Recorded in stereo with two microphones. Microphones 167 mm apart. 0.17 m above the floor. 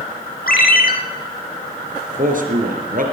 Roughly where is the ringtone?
Left.